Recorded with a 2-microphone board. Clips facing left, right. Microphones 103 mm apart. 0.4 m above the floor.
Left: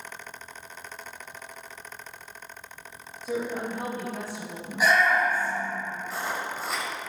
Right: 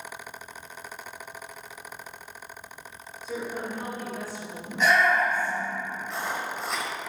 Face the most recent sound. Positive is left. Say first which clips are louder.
# even
turn(degrees=0)  # may be behind; listen again after turning